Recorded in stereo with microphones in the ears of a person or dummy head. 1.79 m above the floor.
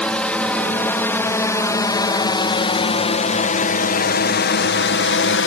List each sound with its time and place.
0.0 s a drone: 5° left (ahead or behind); by 5.5 s 60° left (ahead or behind)